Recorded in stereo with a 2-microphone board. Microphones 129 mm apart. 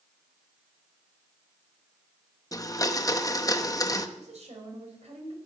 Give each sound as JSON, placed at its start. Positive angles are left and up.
{"t": 2.5, "sound": "a blender", "side_deg": 25, "distance_m": 0.7}
{"t": 4.2, "sound": "a woman speaking", "side_deg": -60, "distance_m": 4.0}